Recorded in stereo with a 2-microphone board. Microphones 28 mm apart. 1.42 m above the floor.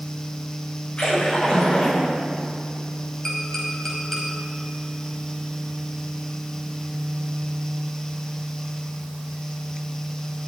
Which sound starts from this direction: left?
A splash, at 1.0 s.